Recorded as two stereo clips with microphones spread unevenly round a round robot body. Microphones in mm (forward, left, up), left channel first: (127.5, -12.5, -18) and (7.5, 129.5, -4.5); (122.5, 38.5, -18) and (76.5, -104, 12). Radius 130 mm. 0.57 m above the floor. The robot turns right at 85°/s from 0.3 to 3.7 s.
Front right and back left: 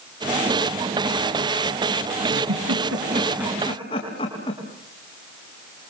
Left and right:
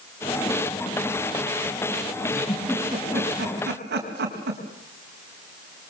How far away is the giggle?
About 4.5 m.